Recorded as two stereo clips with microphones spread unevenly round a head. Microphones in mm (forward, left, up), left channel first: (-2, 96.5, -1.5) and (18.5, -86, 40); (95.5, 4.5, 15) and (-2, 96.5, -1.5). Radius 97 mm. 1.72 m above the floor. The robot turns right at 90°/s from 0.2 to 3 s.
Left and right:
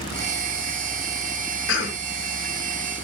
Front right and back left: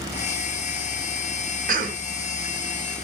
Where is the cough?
115° left, 0.9 m; by 2.0 s 150° left, 0.9 m.